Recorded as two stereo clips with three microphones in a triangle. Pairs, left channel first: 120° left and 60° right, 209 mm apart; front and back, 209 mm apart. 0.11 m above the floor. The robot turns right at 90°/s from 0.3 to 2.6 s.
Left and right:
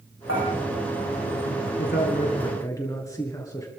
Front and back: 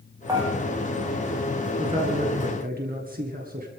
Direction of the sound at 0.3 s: 105° left.